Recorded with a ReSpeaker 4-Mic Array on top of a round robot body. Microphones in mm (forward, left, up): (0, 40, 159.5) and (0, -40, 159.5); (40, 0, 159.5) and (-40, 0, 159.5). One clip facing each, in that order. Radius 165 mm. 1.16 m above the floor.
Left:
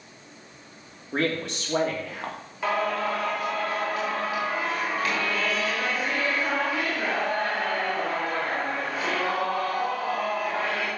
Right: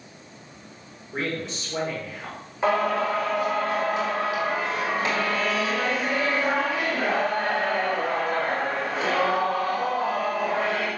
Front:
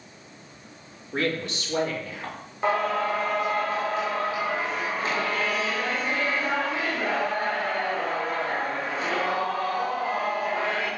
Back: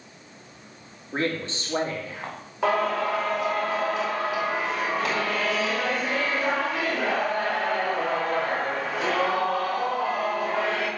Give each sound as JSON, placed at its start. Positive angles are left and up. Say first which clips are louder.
{"t": 1.1, "sound": "a man speaking", "louder": "left 3 dB, even", "azimuth_deg": 120, "distance_m": 3.5}
{"t": 2.6, "sound": "singing", "louder": "right 3 dB, back 1 dB", "azimuth_deg": -160, "distance_m": 4.5}